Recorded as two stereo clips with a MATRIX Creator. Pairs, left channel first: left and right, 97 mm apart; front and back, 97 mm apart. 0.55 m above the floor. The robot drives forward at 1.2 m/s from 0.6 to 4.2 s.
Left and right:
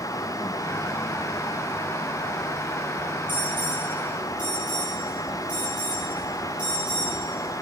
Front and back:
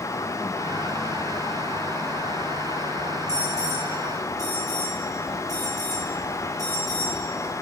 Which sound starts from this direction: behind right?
An alarm, at 3.3 s.